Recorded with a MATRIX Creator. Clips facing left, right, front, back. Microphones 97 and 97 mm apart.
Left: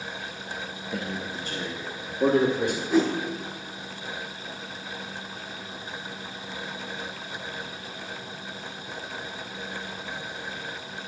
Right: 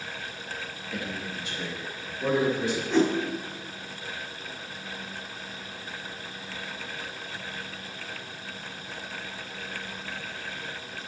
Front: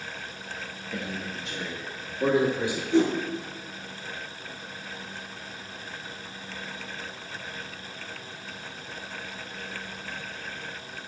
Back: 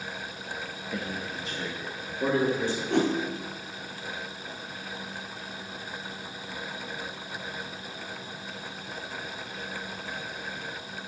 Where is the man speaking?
120° left, 1.1 m; by 2.8 s 80° left, 2.5 m.